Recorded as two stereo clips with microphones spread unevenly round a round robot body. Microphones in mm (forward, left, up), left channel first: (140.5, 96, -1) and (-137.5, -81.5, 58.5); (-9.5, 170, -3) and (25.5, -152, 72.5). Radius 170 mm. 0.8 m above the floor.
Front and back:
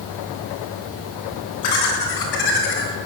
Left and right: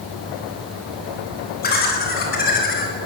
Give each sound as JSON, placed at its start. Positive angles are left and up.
{"t": 1.6, "sound": "laughter", "azimuth_deg": 35, "distance_m": 8.5}